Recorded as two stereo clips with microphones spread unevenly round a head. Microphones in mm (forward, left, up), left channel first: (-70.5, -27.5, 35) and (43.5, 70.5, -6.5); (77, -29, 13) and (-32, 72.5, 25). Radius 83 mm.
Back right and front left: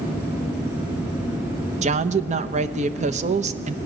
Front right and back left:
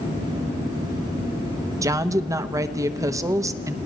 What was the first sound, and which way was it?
A woman speaking, 70° left.